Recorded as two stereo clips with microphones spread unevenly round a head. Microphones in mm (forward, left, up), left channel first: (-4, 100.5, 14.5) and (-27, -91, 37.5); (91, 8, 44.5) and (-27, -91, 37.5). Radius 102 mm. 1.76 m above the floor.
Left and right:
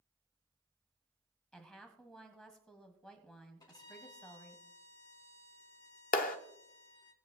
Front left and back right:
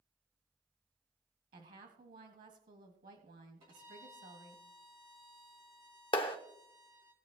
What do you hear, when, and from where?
1.5 s a woman speaking: 170° left, 1.9 m
3.6 s a violin: 155° left, 3 m
6.1 s a clap: 70° left, 0.7 m